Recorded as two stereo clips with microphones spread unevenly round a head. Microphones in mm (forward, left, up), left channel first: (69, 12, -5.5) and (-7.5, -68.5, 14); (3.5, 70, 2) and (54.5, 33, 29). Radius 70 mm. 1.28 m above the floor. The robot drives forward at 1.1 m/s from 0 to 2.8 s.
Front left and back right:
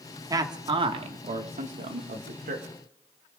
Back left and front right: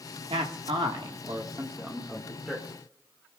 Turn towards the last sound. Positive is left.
turn(degrees=-140)